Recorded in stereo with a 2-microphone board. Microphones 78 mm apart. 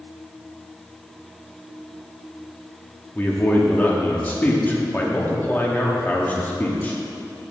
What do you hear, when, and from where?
3.1 s a man speaking: 25° left (ahead or behind), 1.1 m